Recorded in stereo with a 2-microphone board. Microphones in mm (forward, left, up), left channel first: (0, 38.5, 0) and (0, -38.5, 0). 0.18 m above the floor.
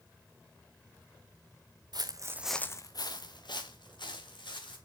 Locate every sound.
1.9 s footsteps: 60° right (ahead or behind), 1.0 m; by 4.8 s 80° left, 3.5 m